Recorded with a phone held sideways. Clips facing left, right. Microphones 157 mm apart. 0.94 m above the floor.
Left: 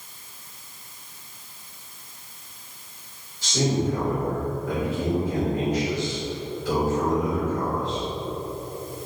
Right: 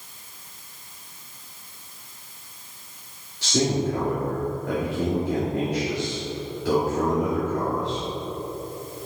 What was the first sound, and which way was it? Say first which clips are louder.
A man speaking: right 1 dB; 70° right (ahead or behind).